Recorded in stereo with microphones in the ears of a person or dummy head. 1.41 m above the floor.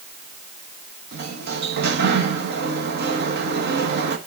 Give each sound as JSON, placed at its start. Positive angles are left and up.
{"t": 1.1, "sound": "a sliding door", "side_deg": -65, "distance_m": 1.7}